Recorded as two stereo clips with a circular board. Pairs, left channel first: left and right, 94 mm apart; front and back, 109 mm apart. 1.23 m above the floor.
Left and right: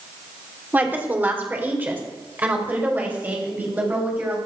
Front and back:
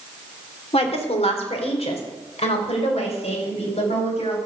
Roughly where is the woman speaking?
Ahead.